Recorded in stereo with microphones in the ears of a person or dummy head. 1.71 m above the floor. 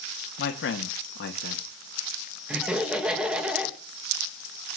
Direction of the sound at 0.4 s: 60° left (ahead or behind).